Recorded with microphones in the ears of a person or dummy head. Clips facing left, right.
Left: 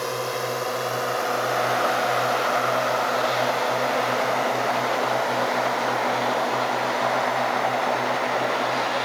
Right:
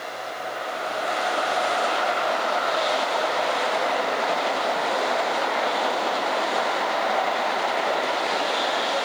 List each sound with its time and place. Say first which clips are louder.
0.0 s a drone: left 6 dB; 70° left (ahead or behind); by 9.1 s 50° left (ahead or behind)